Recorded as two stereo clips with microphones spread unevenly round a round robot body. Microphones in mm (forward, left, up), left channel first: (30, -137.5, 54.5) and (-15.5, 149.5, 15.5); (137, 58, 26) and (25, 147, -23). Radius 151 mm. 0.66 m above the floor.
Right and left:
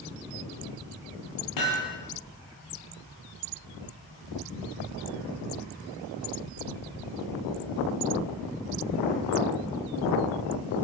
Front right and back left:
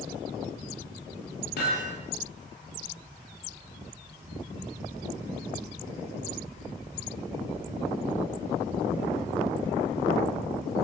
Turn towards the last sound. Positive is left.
turn(degrees=-65)